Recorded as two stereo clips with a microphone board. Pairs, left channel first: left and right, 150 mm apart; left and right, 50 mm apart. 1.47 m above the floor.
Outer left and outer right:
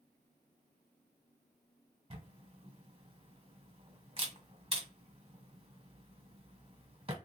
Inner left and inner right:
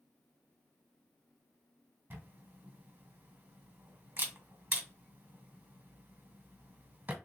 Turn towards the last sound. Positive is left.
turn(degrees=-35)  # may be behind; listen again after turning